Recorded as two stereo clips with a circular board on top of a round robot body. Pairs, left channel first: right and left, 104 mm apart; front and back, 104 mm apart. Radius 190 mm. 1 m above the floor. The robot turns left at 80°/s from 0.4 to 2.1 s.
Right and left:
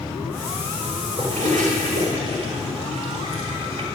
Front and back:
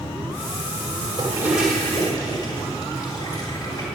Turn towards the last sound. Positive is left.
turn(degrees=55)